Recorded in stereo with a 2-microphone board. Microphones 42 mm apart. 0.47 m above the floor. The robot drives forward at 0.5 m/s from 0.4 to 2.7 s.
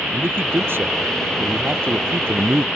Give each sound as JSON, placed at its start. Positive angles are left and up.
{"t": 0.1, "sound": "a man speaking", "side_deg": -65}